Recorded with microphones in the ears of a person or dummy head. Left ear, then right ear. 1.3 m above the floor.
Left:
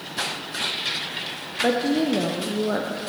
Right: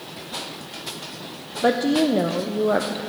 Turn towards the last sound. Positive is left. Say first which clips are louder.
# right 2 dB
turn(degrees=-15)  # may be behind; listen again after turning